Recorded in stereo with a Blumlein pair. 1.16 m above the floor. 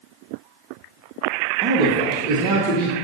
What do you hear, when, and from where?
1.6 s a man speaking: 35° right, 1.2 m